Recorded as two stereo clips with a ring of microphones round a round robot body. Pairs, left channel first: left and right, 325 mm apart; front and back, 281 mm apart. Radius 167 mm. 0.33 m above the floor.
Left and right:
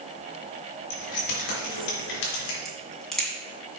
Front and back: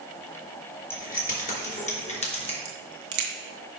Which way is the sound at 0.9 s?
60° left.